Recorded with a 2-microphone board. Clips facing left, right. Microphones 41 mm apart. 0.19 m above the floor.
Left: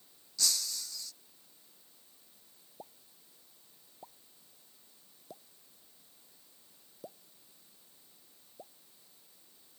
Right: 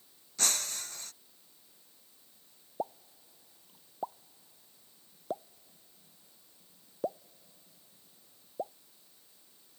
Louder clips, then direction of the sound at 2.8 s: Right 15 dB; 50° right (ahead or behind).